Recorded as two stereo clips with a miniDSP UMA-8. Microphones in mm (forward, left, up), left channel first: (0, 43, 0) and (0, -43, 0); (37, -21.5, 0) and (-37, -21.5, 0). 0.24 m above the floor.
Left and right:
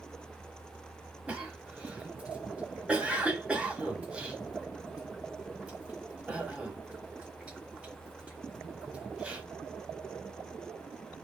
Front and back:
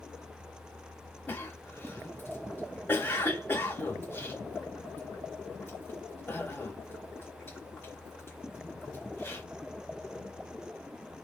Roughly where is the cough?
Ahead right.